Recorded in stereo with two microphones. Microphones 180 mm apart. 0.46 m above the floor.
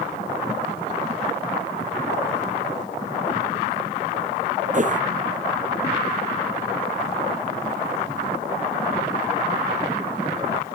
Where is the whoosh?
45° right (ahead or behind).